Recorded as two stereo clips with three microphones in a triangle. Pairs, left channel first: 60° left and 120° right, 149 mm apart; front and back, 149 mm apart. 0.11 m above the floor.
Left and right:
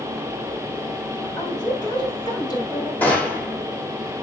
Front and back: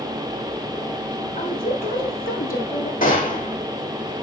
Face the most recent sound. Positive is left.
turn(degrees=-20)